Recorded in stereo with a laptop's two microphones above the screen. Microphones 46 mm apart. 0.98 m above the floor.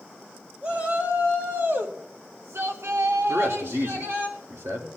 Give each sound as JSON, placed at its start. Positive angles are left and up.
{"t": 0.6, "sound": "a shout", "side_deg": -35, "distance_m": 1.9}
{"t": 3.3, "sound": "a man speaking", "side_deg": -70, "distance_m": 1.8}